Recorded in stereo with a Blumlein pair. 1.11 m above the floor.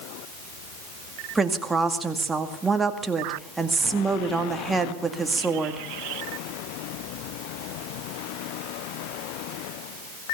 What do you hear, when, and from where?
1.4 s a woman speaking: 10° right, 2 m